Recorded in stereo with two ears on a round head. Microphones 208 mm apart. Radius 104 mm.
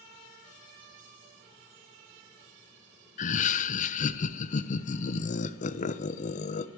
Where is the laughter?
35° left (ahead or behind), 0.5 m.